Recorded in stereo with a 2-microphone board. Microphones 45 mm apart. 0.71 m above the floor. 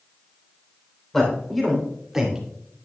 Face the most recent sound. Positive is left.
turn(degrees=-15)  # may be behind; listen again after turning